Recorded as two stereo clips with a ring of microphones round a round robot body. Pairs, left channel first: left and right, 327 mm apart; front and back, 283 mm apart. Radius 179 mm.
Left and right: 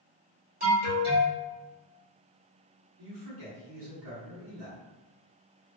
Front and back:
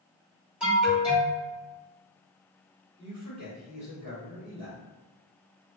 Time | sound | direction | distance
0.6 | an alarm | 100° right | 1.6 m
3.0 | a man speaking | 95° right | 1.9 m